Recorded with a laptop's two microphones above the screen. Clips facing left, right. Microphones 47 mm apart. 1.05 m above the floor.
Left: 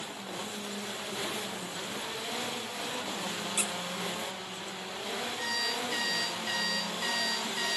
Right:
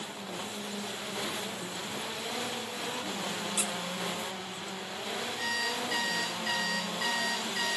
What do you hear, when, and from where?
3.6 s a squeak: 40° left (ahead or behind), 1.3 m
5.4 s an alarm clock: 70° right (ahead or behind), 9 m